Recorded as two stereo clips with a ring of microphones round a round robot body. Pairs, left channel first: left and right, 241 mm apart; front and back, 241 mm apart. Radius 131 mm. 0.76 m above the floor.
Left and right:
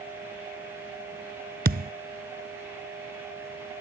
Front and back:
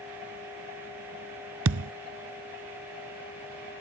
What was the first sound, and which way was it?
A thud, 140° right.